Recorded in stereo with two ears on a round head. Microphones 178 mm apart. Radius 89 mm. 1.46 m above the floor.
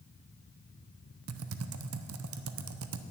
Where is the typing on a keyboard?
80° right, 0.6 m.